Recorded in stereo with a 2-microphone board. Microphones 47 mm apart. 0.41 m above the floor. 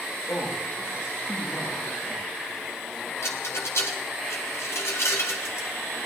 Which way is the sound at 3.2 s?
65° left (ahead or behind).